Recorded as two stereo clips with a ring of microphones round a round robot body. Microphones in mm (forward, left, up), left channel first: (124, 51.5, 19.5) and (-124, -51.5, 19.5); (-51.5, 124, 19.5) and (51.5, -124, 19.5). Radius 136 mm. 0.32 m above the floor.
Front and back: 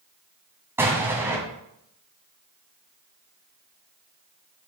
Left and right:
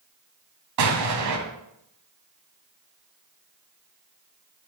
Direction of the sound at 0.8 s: 75° right.